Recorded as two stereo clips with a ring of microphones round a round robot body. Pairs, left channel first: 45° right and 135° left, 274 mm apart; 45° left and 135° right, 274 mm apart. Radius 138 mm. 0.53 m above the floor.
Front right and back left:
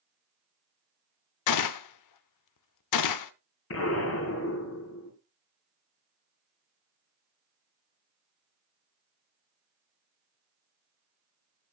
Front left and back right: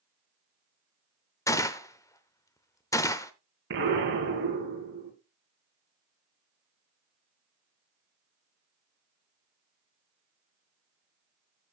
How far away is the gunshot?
About 0.7 m.